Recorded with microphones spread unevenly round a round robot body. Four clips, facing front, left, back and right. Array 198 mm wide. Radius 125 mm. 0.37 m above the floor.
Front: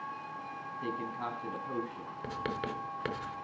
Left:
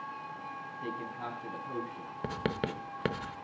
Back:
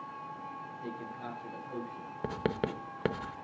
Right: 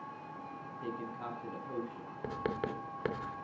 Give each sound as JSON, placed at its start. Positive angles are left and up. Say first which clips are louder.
{"t": 0.8, "sound": "a man speaking", "louder": "left 1 dB, front 6 dB", "azimuth_deg": 25, "distance_m": 2.5}
{"t": 2.2, "sound": "writing", "louder": "left 2 dB, back 4 dB", "azimuth_deg": 145, "distance_m": 0.7}